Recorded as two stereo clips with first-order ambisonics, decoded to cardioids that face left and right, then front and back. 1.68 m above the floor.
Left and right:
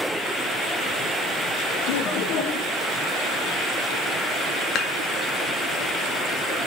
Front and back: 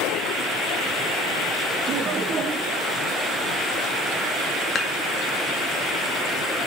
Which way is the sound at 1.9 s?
115° left.